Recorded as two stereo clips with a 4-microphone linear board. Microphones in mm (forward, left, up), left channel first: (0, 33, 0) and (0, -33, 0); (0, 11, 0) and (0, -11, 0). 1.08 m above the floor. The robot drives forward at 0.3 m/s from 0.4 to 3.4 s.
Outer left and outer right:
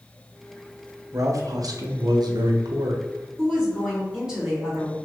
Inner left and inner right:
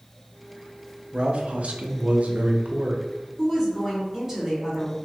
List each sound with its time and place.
1.1 s a man speaking: 50° right (ahead or behind), 0.6 m; by 3.0 s 65° right (ahead or behind), 0.5 m
3.4 s a woman speaking: 10° right (ahead or behind), 1.7 m